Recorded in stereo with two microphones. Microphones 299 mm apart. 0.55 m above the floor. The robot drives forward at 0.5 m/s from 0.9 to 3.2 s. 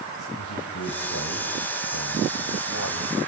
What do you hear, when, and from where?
0.4 s a man speaking: 70° left (ahead or behind), 2.5 m